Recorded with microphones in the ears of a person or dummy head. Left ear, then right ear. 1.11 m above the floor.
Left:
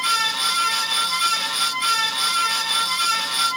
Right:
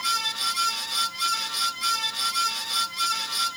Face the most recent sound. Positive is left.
No sound to turn to.